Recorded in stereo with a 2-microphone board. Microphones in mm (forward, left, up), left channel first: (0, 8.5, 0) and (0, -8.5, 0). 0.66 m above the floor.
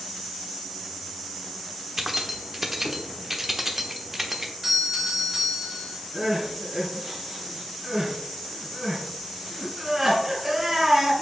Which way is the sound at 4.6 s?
10° right (ahead or behind).